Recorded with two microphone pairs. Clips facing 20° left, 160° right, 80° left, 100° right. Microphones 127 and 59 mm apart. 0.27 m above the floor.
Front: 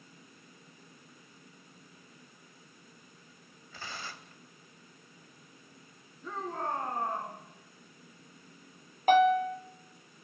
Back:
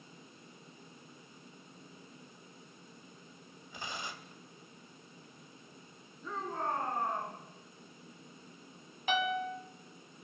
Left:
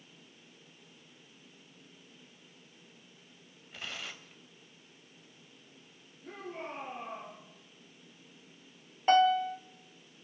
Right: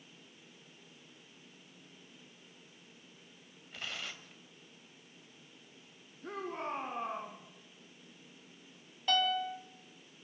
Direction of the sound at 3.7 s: 170° left.